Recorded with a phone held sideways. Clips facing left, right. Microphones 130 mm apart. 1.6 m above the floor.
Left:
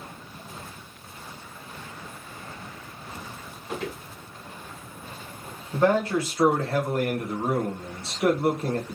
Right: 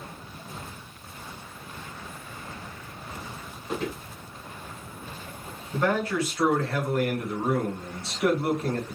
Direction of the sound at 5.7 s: 30° left (ahead or behind).